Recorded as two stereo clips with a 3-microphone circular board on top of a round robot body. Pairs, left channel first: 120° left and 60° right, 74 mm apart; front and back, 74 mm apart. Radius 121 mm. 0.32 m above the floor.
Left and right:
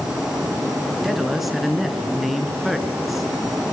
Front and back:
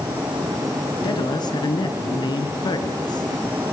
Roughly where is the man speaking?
Ahead left.